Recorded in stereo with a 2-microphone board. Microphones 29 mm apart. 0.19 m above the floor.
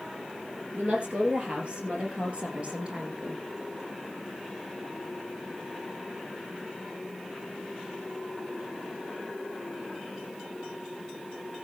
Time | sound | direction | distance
0.7 | a woman speaking | 35° right (ahead or behind) | 4.5 m